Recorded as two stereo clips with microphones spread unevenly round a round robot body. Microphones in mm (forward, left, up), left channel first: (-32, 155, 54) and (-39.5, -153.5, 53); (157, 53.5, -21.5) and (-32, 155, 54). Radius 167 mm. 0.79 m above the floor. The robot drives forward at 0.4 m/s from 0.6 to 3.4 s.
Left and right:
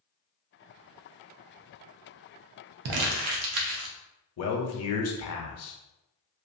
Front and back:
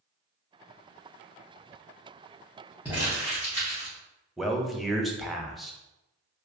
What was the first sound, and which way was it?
Crumpling, 120° right.